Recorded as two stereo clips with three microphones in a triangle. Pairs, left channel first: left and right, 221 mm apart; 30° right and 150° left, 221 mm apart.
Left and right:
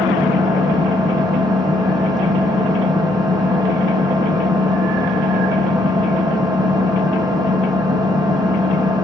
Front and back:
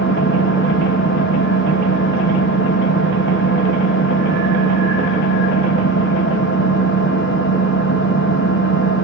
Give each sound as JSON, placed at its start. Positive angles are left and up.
{"t": 0.0, "sound": "an engine running", "azimuth_deg": -20, "distance_m": 3.5}